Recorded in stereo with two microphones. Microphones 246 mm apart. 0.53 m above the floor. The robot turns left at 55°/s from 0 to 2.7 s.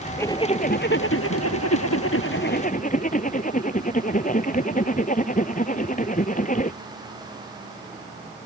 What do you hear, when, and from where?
0.2 s a zipper: 170° left; by 6.8 s 35° left